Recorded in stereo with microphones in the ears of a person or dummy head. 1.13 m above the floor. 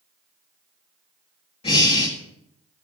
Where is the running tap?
No running tap in this recording.